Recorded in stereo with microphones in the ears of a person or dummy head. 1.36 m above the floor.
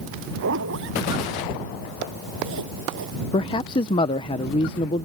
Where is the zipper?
65° right (ahead or behind).